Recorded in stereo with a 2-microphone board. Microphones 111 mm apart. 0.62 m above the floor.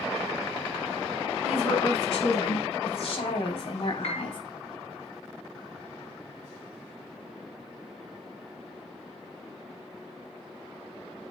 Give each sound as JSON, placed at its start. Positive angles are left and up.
{"t": 1.4, "sound": "a woman speaking", "side_deg": 70, "distance_m": 4.5}
{"t": 4.0, "sound": "a piano", "side_deg": 75, "distance_m": 2.5}